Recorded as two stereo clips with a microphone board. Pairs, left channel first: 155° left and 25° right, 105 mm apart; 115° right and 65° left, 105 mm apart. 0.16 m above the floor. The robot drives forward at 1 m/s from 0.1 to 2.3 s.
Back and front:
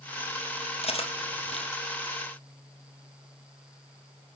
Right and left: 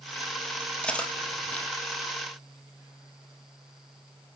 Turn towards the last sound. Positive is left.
turn(degrees=175)